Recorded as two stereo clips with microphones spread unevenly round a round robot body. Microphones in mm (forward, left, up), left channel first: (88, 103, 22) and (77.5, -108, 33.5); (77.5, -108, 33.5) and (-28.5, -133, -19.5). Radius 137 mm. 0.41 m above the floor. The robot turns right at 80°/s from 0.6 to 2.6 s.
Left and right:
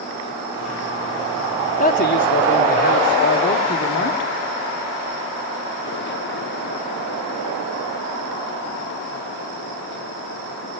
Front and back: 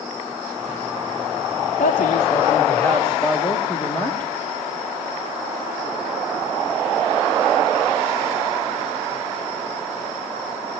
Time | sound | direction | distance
1.8 | a man speaking | 45° left | 1.9 m